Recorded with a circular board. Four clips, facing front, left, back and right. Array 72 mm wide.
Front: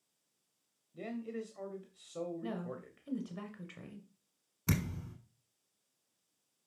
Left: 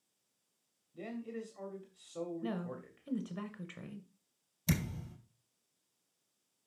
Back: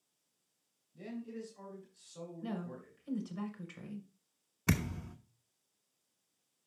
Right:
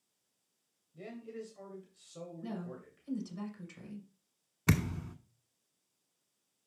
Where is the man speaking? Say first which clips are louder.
Left 2 dB, front 3 dB; 20° left, 1.2 m.